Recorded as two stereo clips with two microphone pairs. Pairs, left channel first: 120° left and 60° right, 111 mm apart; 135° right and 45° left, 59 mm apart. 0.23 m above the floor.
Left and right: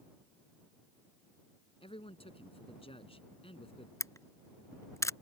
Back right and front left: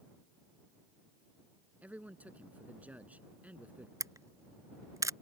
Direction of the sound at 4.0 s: 60° left.